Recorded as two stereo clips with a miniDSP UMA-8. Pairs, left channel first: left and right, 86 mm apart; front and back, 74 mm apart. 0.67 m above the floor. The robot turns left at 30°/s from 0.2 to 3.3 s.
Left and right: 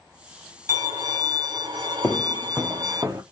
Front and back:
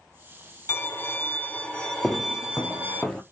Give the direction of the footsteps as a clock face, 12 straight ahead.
10 o'clock.